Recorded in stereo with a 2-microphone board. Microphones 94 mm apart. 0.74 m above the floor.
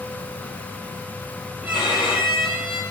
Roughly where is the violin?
Centre.